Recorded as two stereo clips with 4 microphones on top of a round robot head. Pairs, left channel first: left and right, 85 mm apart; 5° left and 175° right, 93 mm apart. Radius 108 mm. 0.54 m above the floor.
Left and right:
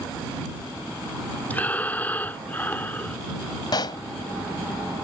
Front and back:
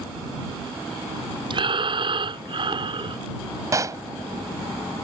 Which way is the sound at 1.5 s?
160° left.